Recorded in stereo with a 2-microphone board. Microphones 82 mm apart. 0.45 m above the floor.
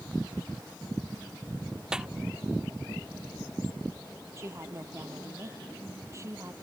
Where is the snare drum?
10° right (ahead or behind).